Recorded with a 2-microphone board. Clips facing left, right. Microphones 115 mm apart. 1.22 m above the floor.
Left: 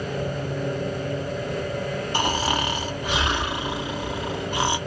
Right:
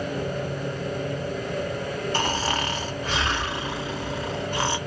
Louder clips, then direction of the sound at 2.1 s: Left 3 dB; 15° left (ahead or behind).